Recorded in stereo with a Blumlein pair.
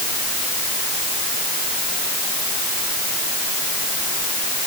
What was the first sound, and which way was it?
Only background noise.